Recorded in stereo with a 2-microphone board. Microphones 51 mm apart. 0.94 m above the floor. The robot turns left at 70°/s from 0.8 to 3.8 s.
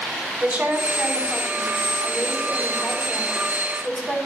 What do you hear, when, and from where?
0.4 s a woman speaking: 160° right, 5 m; by 4.2 s 10° right, 5 m